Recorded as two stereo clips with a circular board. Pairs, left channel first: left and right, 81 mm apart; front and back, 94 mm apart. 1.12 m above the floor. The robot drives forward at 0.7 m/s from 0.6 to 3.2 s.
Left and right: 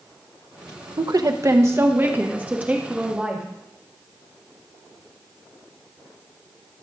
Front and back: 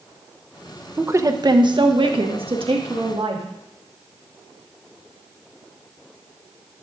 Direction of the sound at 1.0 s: 115° right.